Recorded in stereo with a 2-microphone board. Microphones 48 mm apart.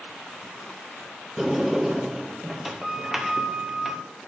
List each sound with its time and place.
1.4 s a sliding door: 5° right (ahead or behind), 0.6 m